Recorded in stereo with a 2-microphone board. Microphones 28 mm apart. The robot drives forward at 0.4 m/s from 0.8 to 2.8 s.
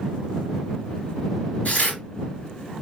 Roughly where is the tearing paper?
Left.